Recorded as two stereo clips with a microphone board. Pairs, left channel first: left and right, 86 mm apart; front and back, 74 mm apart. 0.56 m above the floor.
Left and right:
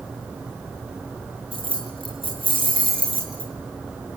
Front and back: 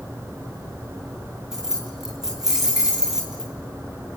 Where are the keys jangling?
95° right, 5.5 m.